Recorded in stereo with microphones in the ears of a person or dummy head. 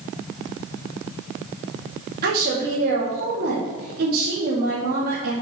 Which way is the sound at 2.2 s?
50° right (ahead or behind).